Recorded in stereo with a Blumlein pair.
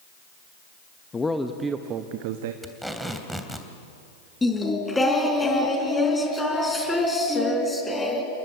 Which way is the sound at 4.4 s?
10° left.